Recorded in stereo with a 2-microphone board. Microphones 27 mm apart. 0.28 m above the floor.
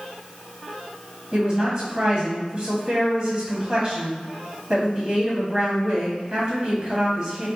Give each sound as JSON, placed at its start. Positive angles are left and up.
{"t": 1.3, "sound": "a woman speaking", "side_deg": -30, "distance_m": 1.6}